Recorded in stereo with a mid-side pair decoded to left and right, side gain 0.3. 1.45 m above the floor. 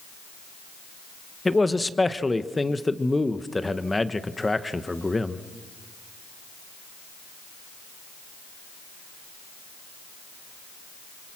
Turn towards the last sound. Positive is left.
turn(degrees=20)